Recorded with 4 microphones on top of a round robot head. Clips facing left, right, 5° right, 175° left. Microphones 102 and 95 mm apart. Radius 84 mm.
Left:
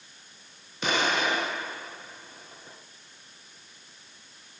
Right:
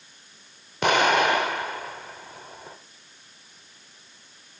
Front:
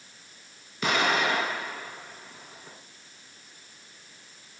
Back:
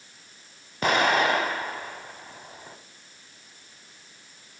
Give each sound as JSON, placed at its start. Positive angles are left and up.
{"t": 0.8, "sound": "an explosion", "azimuth_deg": -125, "distance_m": 1.0}